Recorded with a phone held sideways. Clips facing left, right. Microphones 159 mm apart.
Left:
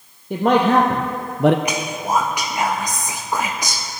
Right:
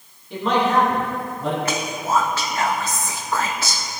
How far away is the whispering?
About 0.6 m.